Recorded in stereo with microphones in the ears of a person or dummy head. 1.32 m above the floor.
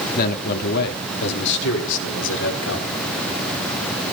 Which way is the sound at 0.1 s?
50° left (ahead or behind).